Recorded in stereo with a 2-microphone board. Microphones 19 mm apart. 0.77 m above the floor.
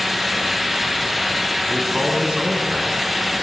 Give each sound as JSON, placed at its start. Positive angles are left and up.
{"t": 1.7, "sound": "a man speaking", "side_deg": -65, "distance_m": 6.5}